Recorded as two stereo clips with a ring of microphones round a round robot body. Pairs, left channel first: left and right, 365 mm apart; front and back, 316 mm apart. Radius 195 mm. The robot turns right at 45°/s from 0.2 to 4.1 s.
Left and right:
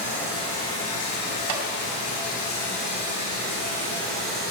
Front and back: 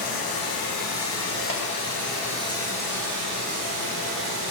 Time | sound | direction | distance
0.0 | running water | 5° left | 7 m
1.5 | a clap | 75° right | 2.5 m